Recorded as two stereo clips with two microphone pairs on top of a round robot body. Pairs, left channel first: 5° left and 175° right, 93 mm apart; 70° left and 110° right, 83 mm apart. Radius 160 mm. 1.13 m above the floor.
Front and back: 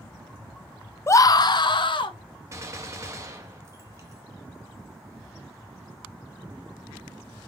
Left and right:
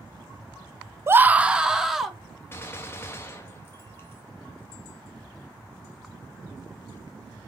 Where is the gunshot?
130° left, 0.7 m.